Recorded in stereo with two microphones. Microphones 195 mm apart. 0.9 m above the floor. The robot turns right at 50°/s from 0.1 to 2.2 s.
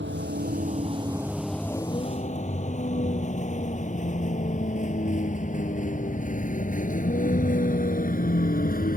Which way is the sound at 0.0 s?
70° right (ahead or behind).